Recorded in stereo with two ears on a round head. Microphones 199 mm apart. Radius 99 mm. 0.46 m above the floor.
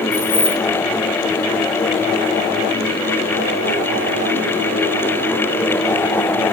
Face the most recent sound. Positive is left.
turn(degrees=70)  # may be behind; listen again after turning